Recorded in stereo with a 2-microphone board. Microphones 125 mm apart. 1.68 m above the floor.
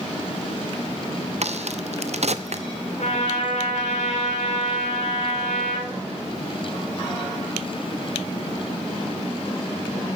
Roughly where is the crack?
Right.